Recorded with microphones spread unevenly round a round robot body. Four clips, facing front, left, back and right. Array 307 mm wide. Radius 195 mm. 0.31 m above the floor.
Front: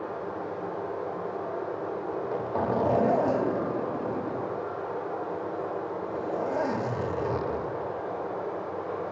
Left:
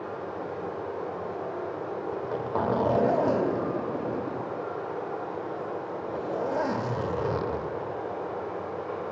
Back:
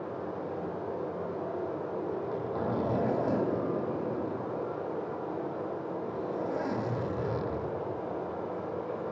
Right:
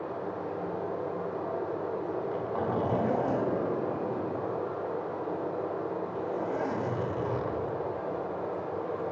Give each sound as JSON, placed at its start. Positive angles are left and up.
{"t": 0.0, "sound": "running water", "azimuth_deg": 175, "distance_m": 5.0}
{"t": 2.1, "sound": "a zipper", "azimuth_deg": 40, "distance_m": 1.3}